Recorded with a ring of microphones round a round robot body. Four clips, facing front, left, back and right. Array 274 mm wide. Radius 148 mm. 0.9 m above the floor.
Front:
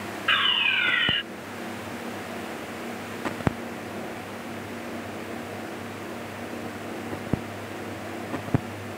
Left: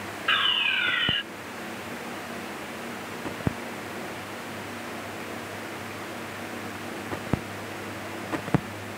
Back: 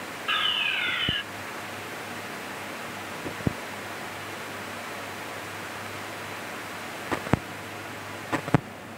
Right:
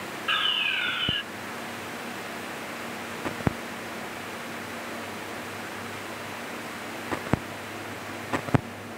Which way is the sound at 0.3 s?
25° left.